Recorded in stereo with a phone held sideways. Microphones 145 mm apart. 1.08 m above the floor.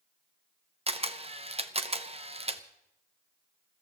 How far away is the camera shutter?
About 0.8 m.